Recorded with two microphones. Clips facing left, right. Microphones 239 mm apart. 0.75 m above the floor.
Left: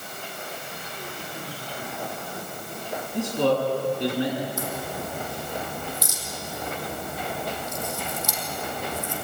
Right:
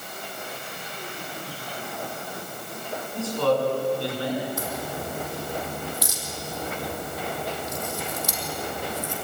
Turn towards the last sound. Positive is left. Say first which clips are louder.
# even
turn(degrees=-70)  # may be behind; listen again after turning